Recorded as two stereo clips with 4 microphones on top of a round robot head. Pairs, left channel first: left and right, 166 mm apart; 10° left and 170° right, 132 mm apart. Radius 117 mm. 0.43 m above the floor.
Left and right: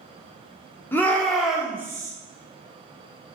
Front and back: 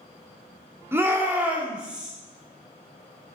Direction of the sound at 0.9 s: 145° left.